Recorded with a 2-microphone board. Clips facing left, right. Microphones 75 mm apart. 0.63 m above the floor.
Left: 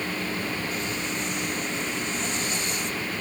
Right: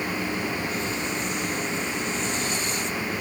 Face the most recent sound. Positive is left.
No sound to turn to.